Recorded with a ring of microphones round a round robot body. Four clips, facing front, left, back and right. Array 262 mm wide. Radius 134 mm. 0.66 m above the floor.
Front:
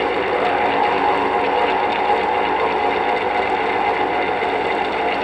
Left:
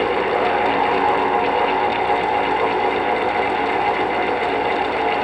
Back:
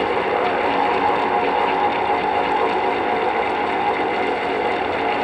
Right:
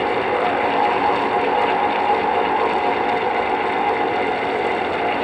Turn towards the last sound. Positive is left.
No sound to turn to.